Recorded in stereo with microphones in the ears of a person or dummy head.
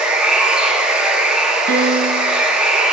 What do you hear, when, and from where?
0.0 s running water: 5° right (ahead or behind), 1.0 m
1.7 s a piano: 60° right (ahead or behind), 0.7 m